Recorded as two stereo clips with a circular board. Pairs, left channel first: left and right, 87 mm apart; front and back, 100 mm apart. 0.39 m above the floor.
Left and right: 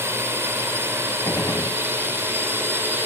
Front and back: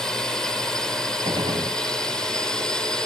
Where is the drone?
80° right; by 3.1 s 75° right.